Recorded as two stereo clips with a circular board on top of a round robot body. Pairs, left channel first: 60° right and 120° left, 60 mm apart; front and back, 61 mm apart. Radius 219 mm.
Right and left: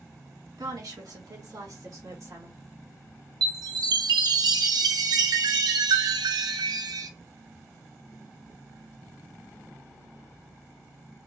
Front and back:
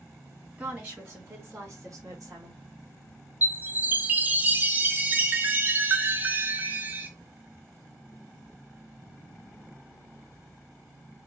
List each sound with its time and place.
0.6 s a woman speaking: 115° left, 2.5 m; by 2.6 s 155° left, 2 m
3.4 s a chime: 115° left, 0.6 m